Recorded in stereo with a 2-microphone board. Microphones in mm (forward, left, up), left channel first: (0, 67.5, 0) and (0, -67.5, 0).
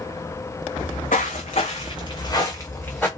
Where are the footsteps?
80° left, 1.0 m; by 3.1 s 10° left (ahead or behind), 1.1 m.